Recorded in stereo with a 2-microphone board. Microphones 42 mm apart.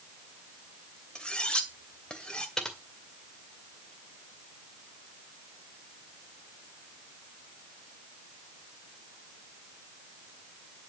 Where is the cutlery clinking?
25° left (ahead or behind), 1.9 m.